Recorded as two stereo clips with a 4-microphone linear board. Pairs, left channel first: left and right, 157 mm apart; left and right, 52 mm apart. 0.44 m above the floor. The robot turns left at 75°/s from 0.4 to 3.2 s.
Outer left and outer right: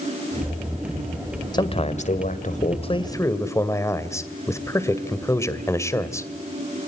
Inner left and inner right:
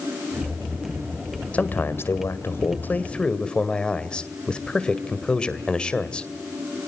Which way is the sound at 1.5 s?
145° left.